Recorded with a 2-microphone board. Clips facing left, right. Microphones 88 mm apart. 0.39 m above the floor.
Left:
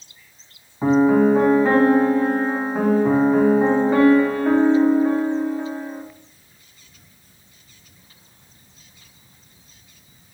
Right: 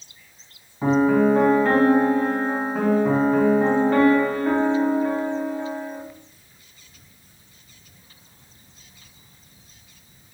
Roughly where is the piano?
Centre.